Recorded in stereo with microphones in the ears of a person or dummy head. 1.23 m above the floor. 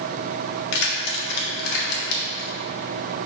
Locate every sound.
0.7 s keys jangling: 70° left (ahead or behind), 1.5 m; by 2.5 s 50° left (ahead or behind), 2 m